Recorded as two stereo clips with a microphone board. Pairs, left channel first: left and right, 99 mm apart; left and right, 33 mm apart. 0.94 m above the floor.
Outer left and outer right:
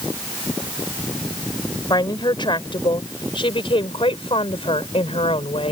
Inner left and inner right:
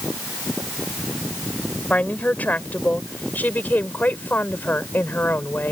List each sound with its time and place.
1.9 s a woman speaking: 50° left (ahead or behind); by 5.7 s 80° left